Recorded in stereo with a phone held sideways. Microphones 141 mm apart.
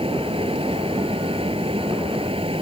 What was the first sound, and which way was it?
A fan, 40° right (ahead or behind).